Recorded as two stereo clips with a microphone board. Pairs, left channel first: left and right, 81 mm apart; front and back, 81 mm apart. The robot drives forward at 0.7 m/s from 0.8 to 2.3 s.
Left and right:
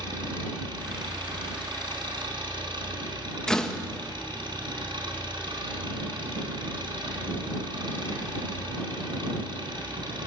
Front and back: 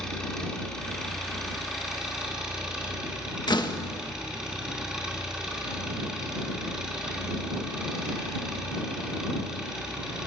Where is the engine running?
85° right, 4 m; by 10.3 s 100° right, 4 m.